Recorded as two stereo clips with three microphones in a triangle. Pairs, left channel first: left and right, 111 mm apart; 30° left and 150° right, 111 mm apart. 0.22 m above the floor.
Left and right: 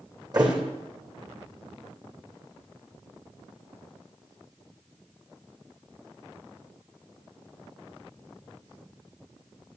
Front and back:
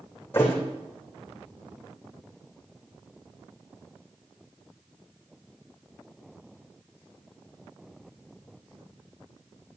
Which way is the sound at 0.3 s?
40° right.